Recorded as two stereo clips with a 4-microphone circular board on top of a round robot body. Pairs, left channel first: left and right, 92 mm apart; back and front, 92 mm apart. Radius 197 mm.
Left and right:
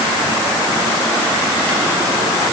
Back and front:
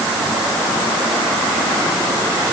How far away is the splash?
No splash in this recording.